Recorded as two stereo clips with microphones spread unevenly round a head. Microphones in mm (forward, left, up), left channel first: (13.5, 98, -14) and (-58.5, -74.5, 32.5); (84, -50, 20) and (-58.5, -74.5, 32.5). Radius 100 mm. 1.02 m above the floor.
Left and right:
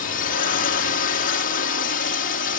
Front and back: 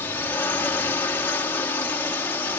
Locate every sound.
0.0 s a drone: 85° left